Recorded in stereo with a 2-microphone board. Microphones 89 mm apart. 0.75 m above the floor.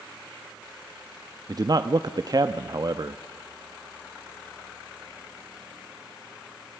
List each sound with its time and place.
1.5 s a man speaking: 45° right (ahead or behind), 0.7 m